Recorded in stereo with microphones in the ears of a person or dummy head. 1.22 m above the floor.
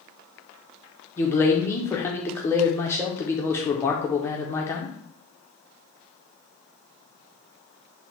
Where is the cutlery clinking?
I don't hear cutlery clinking.